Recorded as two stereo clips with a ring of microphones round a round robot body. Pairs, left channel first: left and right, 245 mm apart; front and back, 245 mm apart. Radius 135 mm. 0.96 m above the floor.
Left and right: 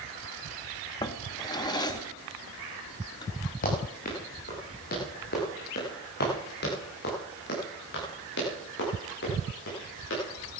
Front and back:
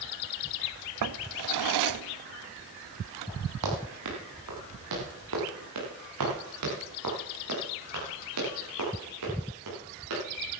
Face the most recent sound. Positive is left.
turn(degrees=140)